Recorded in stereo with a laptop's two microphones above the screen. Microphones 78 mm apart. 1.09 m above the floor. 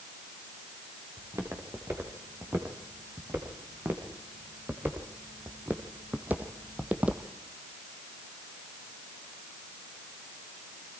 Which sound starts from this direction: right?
Footsteps, at 1.2 s.